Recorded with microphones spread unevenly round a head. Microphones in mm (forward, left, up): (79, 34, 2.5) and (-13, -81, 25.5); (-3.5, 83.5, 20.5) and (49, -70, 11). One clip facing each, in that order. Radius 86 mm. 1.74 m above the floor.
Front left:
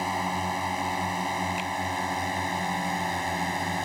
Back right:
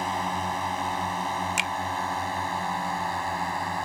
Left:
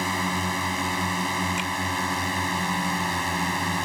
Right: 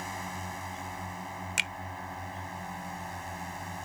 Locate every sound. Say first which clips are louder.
0.0 s a drone: even, left 11 dB; 135° left; by 3.9 s 125° left
1.6 s a finger snap: even, left 11 dB; 145° right